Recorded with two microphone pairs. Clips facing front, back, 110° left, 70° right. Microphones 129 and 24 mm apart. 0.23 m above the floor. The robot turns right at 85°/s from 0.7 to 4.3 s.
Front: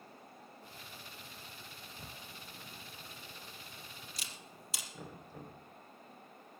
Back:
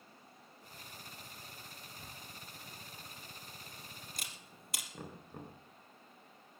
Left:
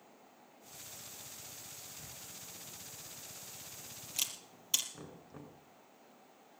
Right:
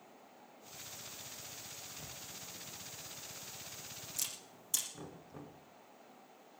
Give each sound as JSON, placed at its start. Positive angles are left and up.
{"t": 2.0, "sound": "a camera shutter", "azimuth_deg": -45, "distance_m": 3.0}
{"t": 4.9, "sound": "knocking", "azimuth_deg": -175, "distance_m": 2.5}